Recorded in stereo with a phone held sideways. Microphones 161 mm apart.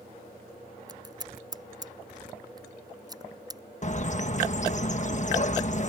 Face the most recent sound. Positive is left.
turn(degrees=50)  # may be behind; listen again after turning